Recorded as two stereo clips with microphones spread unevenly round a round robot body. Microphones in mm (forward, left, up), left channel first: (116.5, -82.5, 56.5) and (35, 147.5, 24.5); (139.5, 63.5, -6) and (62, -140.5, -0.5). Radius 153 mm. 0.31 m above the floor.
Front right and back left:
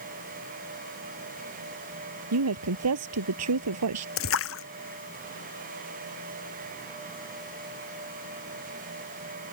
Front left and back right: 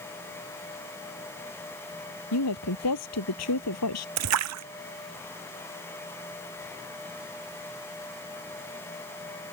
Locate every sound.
2.3 s a woman speaking: 90° left; by 4.1 s 100° left
4.2 s a splash: 120° right